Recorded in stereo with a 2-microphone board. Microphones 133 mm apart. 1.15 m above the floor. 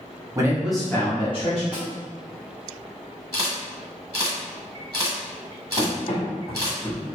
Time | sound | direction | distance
0.3 | a man speaking | 25° right (ahead or behind) | 0.8 m
1.7 | a snare drum | 5° right (ahead or behind) | 0.9 m
3.3 | a camera shutter | 25° right (ahead or behind) | 1.1 m
5.8 | running footsteps | 55° left (ahead or behind) | 1.9 m